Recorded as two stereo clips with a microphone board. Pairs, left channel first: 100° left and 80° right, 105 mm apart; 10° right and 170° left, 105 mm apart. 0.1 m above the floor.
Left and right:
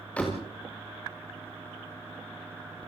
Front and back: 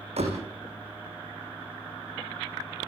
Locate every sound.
0.2 s a door slam: straight behind, 7 m